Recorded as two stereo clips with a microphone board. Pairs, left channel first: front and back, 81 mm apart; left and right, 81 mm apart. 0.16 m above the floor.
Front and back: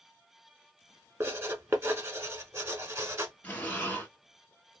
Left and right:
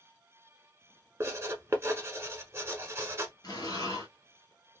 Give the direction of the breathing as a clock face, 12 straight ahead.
10 o'clock.